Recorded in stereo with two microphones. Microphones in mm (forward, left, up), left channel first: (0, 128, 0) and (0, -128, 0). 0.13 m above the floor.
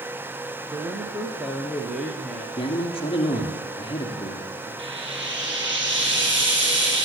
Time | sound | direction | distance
0.7 | a man speaking | 10° right (ahead or behind) | 1.5 m
2.6 | a man speaking | 20° left (ahead or behind) | 2.5 m
4.8 | frying | 50° right (ahead or behind) | 4 m